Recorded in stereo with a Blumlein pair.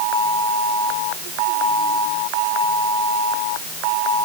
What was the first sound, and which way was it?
Only background noise.